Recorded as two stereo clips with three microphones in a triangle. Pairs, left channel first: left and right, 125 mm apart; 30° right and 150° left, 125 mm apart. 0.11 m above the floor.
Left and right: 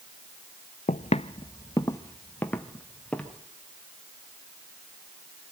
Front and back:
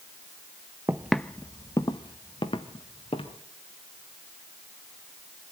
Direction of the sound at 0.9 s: 80° left.